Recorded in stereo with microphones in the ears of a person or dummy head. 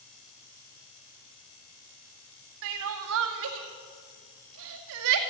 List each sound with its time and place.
2.6 s crying: 65° right (ahead or behind), 2 m